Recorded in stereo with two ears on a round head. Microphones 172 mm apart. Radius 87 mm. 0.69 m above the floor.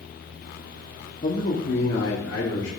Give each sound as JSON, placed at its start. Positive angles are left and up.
{"t": 1.2, "sound": "a man speaking", "side_deg": 45, "distance_m": 1.2}